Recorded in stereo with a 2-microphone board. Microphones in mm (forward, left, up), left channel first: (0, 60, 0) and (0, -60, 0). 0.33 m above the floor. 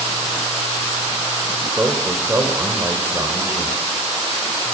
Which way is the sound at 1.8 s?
20° right (ahead or behind).